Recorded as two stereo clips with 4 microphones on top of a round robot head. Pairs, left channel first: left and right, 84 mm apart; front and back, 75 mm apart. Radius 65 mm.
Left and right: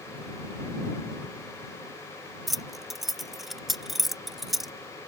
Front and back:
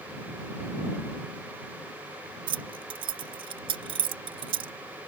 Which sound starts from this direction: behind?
Keys jangling, at 2.5 s.